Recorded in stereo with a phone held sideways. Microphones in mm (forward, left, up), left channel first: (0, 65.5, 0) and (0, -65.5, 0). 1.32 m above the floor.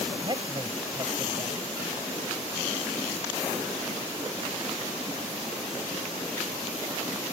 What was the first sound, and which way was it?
A man speaking, 35° right (ahead or behind).